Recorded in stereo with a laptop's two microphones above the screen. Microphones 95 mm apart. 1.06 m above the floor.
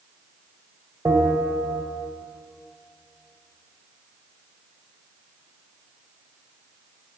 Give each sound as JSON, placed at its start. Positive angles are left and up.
{"t": 1.1, "sound": "a bell", "side_deg": -35, "distance_m": 2.0}